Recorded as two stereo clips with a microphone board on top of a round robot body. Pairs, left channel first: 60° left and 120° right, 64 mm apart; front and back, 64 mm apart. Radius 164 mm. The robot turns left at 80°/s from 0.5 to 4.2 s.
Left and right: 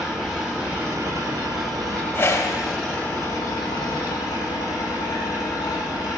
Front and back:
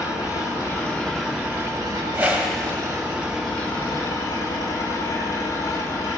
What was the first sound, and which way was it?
An engine running, 35° right.